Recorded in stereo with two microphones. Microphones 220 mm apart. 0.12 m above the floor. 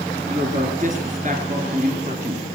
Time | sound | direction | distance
0.3 | a woman speaking | 40° right (ahead or behind) | 2.0 m